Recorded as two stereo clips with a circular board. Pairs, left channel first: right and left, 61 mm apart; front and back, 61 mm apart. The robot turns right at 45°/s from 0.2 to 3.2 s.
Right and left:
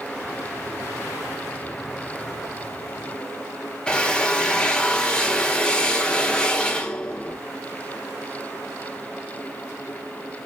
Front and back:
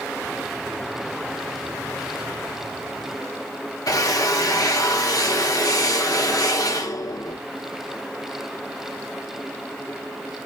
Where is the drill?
10° right, 0.9 m.